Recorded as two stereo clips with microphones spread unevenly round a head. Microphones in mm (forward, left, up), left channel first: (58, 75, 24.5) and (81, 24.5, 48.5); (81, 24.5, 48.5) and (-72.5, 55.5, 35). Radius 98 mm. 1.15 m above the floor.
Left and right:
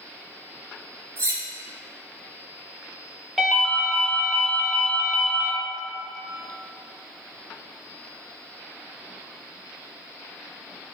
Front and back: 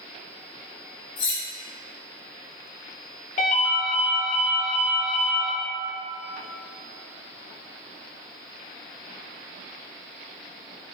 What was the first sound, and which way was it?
Cutlery clinking, 30° right.